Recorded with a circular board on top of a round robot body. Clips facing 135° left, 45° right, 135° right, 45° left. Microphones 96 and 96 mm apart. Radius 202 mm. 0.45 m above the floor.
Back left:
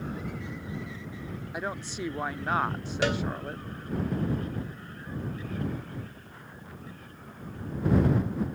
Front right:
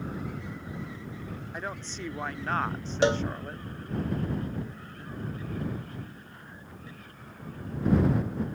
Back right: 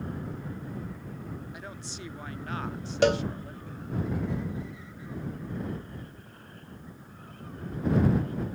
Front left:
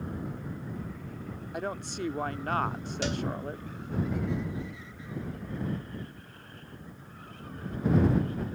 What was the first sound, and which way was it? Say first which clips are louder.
A woman speaking: back left 4 dB, front left 8 dB; 55° left.